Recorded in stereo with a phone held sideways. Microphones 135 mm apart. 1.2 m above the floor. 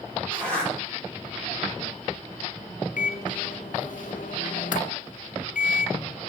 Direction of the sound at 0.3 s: 10° left (ahead or behind).